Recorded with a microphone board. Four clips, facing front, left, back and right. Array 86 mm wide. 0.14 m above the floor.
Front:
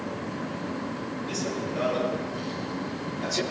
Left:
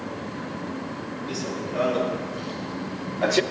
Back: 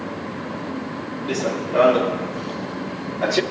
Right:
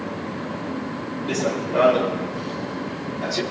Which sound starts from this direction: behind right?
Running footsteps, at 1.3 s.